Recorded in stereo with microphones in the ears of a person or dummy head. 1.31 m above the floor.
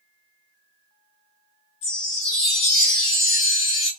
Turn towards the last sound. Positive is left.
turn(degrees=60)  # may be behind; listen again after turning